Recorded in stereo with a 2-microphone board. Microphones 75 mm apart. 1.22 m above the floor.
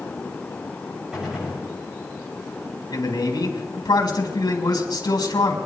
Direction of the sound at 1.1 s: 5° right (ahead or behind).